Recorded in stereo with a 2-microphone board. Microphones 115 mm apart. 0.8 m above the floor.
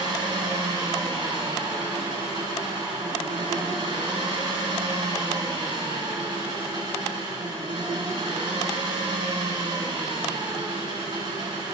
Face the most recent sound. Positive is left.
turn(degrees=-45)  # may be behind; listen again after turning